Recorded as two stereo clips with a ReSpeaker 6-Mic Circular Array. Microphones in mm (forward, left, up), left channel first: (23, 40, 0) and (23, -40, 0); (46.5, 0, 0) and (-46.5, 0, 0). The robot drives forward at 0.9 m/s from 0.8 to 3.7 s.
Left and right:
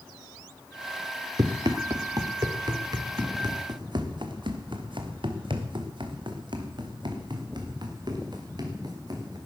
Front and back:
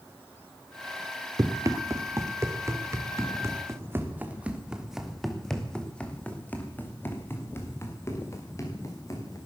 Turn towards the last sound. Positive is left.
turn(degrees=-55)